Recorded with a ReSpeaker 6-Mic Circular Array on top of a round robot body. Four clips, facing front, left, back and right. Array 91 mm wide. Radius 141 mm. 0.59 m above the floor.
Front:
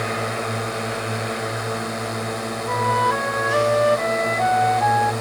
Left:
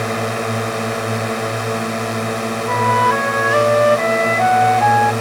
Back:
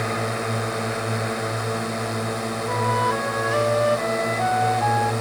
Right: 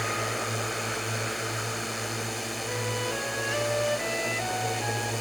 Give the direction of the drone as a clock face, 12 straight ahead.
9 o'clock.